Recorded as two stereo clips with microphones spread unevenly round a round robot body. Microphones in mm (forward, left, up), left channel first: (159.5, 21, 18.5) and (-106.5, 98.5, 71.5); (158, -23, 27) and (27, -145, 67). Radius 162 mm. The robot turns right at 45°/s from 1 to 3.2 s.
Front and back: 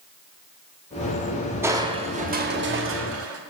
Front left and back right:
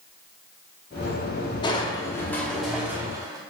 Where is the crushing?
75° left, 1.0 m; by 3.4 s 145° left, 1.0 m.